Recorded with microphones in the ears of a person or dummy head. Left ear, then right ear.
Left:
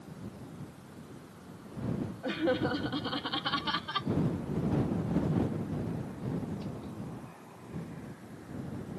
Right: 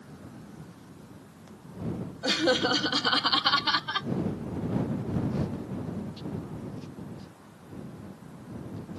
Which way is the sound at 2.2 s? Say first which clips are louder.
Right 6 dB; 80° right.